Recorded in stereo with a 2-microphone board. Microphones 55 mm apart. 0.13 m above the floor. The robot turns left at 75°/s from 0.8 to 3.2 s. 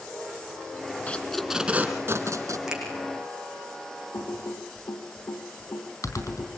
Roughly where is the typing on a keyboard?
Left.